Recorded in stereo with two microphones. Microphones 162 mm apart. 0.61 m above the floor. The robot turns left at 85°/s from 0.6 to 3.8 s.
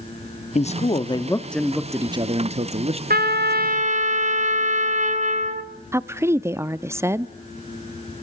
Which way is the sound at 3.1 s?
70° right.